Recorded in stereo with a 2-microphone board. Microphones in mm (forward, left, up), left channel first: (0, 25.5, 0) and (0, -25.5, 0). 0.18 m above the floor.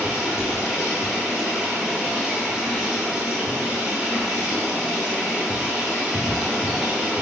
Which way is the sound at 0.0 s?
15° right (ahead or behind).